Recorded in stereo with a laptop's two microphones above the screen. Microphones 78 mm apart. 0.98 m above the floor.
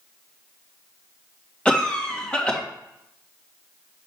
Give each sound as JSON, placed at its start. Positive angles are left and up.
{"t": 1.6, "sound": "a cough", "side_deg": 10, "distance_m": 1.7}